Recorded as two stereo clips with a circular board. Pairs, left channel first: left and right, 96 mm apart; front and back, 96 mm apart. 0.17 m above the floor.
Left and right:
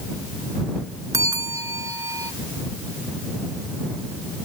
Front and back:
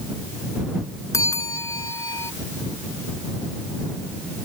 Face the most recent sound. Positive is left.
turn(degrees=-45)